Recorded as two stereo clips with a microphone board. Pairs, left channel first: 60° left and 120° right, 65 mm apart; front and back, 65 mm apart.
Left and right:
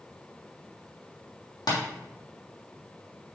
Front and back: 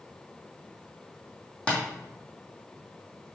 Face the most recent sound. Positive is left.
turn(degrees=75)